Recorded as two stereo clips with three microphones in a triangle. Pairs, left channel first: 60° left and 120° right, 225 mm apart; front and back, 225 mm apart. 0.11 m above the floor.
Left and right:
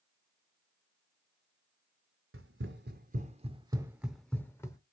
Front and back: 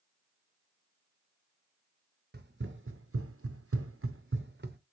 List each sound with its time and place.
2.3 s running footsteps: 140° right, 0.9 m; by 4.8 s 135° left, 0.9 m